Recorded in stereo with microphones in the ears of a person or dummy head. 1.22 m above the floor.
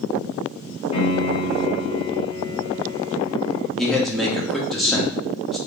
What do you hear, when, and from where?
0.9 s a piano: 25° left (ahead or behind), 0.7 m
3.8 s a man speaking: centre (ahead or behind), 0.5 m